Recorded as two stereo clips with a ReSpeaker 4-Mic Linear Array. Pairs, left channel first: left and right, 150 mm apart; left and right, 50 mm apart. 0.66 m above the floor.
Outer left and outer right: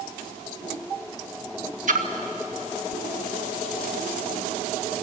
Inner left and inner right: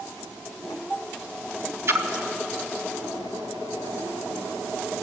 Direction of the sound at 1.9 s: 55° right (ahead or behind).